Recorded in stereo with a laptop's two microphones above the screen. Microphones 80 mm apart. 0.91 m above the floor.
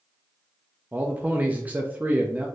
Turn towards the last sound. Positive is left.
turn(degrees=-20)  # may be behind; listen again after turning